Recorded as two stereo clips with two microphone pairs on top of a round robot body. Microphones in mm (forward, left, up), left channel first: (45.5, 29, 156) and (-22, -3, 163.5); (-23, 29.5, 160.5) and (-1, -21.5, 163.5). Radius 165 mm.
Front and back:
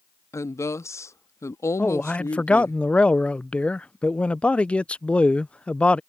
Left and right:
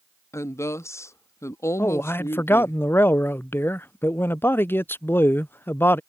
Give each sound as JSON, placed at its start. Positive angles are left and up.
{"t": 0.3, "sound": "a woman speaking", "azimuth_deg": 75}
{"t": 1.8, "sound": "a man speaking", "azimuth_deg": 90}